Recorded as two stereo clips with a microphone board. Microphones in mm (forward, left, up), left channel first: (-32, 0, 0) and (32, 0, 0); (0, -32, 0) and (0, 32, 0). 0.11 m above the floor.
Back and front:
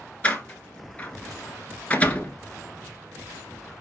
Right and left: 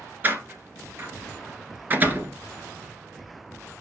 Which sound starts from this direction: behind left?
A door slam, at 0.2 s.